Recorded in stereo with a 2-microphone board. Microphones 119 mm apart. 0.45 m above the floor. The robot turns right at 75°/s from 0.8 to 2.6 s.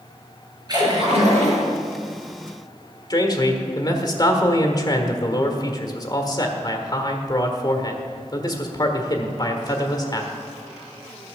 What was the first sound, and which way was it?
A splash, 145° right.